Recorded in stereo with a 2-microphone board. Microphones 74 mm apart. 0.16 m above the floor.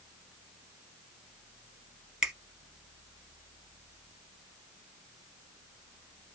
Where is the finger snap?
10° right (ahead or behind), 0.9 m.